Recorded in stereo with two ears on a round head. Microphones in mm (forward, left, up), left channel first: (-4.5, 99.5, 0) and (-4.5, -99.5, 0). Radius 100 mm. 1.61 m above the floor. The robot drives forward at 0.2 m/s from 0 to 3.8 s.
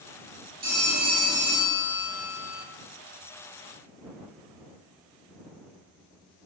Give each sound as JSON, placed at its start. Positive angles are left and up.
{"t": 0.6, "sound": "a phone ringing", "side_deg": -40, "distance_m": 1.7}